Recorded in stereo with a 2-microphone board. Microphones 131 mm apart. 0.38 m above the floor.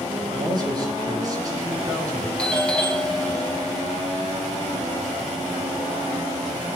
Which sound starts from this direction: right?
A man speaking, at 0.3 s.